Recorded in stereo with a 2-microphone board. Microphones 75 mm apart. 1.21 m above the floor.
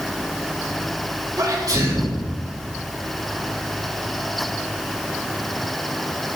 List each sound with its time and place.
1.4 s a sneeze: 50° right (ahead or behind), 4 m